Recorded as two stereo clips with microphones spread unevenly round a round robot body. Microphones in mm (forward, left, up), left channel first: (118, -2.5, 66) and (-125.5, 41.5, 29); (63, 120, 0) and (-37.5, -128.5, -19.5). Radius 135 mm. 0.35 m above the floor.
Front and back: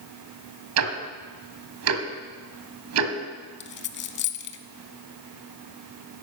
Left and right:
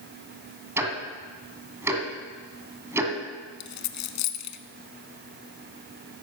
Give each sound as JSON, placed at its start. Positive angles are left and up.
{"t": 0.8, "sound": "ticking", "azimuth_deg": 165, "distance_m": 1.8}
{"t": 3.6, "sound": "a dropped coin", "azimuth_deg": 35, "distance_m": 0.8}